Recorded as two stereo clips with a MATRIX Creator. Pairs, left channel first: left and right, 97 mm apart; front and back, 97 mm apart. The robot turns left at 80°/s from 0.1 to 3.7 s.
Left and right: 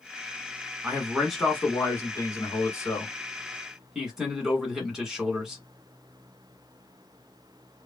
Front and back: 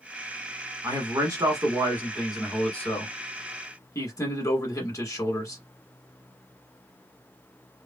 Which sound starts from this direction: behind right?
A man speaking, at 0.8 s.